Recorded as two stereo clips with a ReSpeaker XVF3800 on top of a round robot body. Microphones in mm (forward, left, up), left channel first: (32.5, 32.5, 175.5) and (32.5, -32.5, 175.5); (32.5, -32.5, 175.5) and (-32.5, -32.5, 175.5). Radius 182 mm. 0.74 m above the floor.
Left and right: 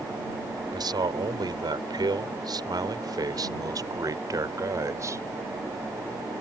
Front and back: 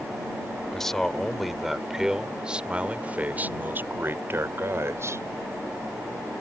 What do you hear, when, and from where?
0.7 s a man speaking: 85° right; by 5.2 s 135° right